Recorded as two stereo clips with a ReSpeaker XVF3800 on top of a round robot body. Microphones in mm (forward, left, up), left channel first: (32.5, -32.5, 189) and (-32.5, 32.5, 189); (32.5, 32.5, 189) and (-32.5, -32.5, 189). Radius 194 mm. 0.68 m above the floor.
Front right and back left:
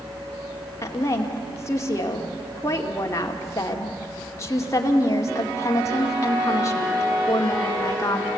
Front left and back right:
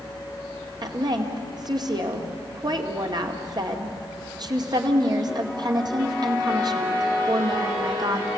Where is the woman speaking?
100° right, 2.5 m.